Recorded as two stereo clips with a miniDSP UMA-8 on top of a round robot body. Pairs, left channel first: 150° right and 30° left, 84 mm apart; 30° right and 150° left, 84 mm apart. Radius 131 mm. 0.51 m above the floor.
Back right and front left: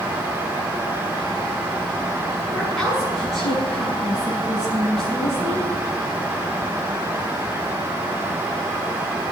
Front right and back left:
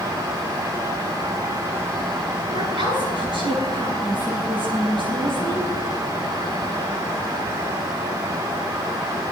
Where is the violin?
I don't hear a violin.